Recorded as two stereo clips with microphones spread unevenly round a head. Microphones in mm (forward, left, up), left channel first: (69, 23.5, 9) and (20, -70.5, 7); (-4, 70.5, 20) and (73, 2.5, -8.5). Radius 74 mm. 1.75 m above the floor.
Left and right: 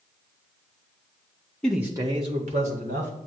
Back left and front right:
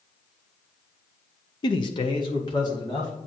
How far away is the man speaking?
About 0.7 m.